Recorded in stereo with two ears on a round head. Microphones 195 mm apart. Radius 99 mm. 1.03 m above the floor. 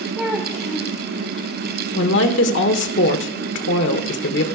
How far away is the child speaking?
About 1.6 m.